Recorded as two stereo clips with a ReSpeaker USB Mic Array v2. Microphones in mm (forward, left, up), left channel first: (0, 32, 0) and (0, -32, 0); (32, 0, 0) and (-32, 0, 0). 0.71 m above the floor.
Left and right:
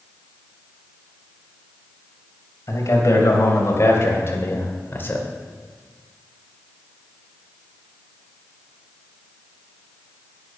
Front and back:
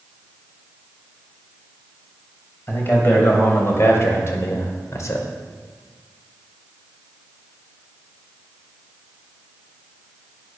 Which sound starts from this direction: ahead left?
A man speaking, at 2.7 s.